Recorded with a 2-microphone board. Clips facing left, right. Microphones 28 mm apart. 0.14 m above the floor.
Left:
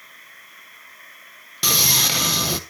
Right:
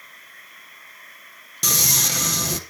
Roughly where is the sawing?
Left.